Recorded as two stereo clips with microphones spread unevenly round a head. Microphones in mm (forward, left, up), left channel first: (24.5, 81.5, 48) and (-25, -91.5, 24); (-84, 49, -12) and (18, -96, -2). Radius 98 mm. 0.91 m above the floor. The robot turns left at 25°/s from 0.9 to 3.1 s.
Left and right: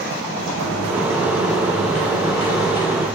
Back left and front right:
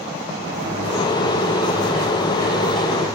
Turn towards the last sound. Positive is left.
turn(degrees=0)